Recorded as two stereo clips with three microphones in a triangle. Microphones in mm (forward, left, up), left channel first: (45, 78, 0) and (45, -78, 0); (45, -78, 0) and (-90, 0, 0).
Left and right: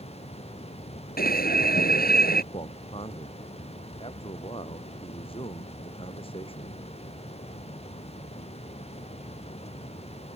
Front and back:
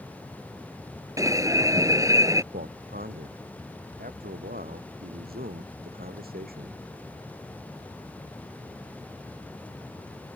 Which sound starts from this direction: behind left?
A man speaking, at 2.5 s.